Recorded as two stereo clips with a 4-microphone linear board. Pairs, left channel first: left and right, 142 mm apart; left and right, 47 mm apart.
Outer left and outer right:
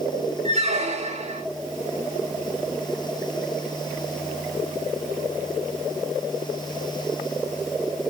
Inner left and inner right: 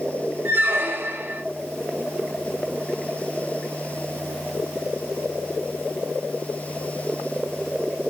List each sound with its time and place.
0.5 s a squeak: 50° right (ahead or behind), 0.5 m